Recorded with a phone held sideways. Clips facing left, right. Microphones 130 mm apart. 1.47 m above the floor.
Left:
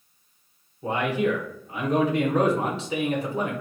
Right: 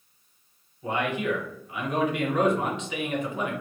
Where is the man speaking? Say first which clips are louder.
Left 3 dB; 35° left (ahead or behind), 1.0 m.